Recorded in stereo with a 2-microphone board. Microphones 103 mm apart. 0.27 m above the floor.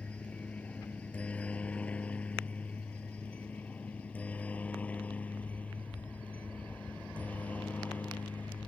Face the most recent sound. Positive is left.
turn(degrees=15)  # may be behind; listen again after turning